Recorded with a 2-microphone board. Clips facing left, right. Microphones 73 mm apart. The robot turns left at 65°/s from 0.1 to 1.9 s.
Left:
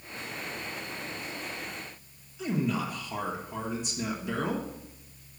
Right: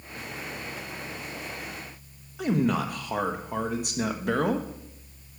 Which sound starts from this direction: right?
A man speaking, at 2.4 s.